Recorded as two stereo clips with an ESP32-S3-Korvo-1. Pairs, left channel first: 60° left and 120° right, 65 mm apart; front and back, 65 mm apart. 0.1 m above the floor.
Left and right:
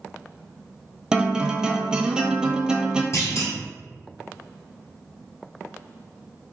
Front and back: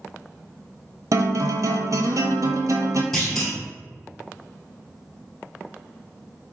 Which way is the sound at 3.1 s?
85° left.